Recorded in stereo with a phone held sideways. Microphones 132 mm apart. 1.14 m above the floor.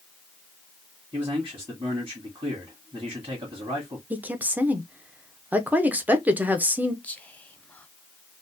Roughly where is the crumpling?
No crumpling in this recording.